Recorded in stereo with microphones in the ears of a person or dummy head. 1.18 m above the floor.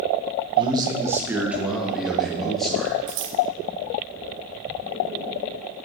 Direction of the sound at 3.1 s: 50° right (ahead or behind).